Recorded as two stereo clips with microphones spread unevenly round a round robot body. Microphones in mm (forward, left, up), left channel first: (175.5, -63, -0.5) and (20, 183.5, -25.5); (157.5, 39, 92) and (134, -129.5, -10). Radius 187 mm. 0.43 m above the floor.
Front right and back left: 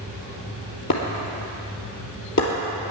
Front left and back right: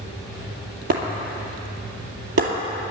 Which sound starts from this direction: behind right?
Breaking glass, at 0.9 s.